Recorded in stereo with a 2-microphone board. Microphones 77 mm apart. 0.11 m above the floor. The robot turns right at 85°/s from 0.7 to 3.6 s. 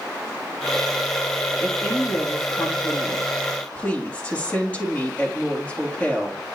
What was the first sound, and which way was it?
A woman speaking, 10° right.